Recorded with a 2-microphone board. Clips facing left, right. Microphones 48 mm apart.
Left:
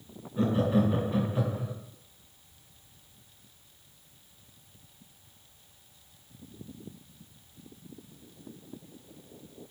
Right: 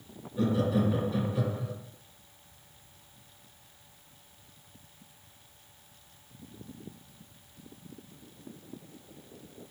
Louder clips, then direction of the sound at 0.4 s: Left 2 dB; 30° left (ahead or behind).